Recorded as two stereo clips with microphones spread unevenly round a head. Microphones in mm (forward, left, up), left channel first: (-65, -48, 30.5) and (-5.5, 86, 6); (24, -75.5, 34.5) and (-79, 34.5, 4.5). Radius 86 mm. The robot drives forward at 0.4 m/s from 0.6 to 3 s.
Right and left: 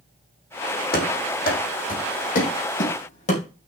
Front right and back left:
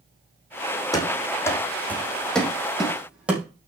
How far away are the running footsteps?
About 3.5 m.